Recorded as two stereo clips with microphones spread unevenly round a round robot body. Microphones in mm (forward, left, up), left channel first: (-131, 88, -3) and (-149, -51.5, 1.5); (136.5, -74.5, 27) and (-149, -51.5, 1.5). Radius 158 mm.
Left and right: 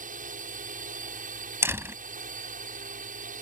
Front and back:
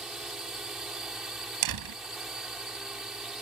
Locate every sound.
0.0 s a drone: 95° right
1.6 s a door slam: 170° right